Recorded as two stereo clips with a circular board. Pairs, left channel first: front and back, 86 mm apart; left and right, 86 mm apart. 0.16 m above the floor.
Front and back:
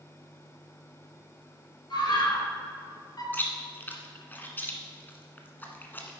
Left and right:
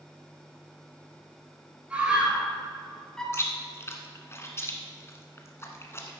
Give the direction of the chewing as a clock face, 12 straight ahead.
10 o'clock.